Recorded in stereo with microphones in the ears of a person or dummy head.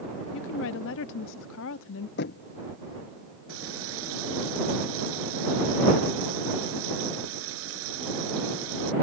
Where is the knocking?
55° left (ahead or behind).